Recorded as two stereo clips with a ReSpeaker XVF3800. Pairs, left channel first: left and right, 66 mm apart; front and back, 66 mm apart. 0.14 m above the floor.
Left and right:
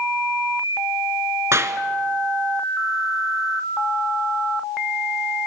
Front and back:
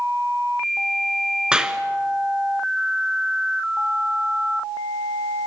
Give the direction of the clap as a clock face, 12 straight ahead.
4 o'clock.